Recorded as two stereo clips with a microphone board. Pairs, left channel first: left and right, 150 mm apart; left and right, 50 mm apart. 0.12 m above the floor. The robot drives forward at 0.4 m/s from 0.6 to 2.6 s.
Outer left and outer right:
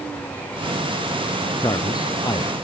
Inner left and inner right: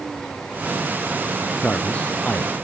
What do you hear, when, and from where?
1.6 s a man speaking: 30° left (ahead or behind); by 2.5 s 25° left (ahead or behind)